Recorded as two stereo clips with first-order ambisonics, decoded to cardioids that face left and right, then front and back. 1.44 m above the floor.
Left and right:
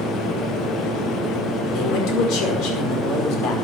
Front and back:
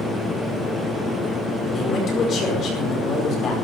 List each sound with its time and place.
1.7 s a man speaking: 60° left, 5 m